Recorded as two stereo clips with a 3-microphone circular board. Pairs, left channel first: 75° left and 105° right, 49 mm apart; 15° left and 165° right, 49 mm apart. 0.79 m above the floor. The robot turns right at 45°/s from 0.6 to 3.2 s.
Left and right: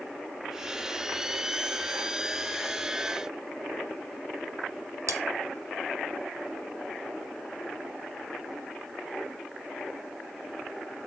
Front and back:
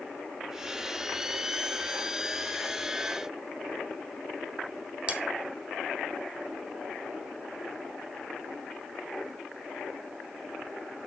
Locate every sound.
5.1 s cutlery clinking: 100° right, 0.6 m